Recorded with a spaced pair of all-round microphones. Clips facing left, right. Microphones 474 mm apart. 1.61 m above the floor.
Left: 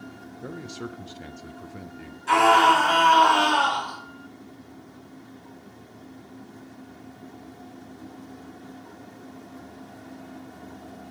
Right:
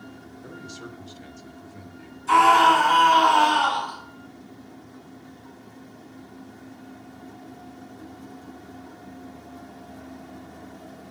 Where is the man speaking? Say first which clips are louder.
Left 6 dB; 75° left (ahead or behind), 0.6 m.